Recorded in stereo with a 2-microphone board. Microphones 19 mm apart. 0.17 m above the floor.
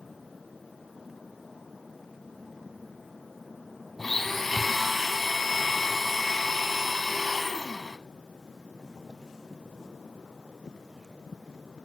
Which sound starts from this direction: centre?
A blender, at 4.0 s.